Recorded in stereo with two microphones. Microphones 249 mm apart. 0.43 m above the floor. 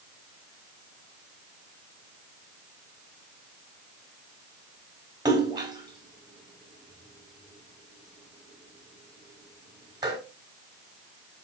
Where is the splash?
15° right (ahead or behind), 1.3 m.